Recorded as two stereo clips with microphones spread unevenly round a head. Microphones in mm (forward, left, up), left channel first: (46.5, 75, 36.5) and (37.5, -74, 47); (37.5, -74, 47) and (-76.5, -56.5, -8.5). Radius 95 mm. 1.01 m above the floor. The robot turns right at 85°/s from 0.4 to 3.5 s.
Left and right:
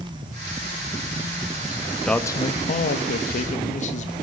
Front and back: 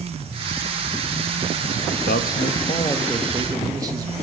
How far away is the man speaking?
About 2.0 m.